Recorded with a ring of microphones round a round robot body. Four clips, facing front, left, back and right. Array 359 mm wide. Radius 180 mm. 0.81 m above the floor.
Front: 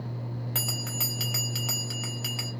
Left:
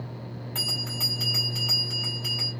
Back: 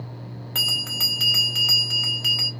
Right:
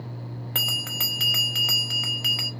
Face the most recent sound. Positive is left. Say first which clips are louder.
# right 3 dB, back 2 dB
turn(degrees=-95)